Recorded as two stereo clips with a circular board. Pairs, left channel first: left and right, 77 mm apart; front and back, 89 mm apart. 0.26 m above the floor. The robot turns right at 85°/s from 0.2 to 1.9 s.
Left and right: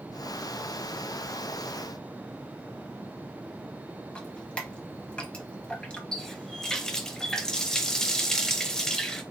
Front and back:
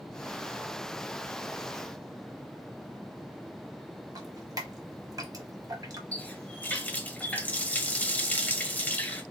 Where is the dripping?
160° left, 0.8 m.